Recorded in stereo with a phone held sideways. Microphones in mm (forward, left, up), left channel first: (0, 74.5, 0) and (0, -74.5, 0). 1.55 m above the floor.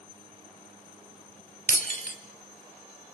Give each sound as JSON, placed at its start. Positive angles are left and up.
{"t": 1.7, "sound": "breaking glass", "side_deg": 65, "distance_m": 2.0}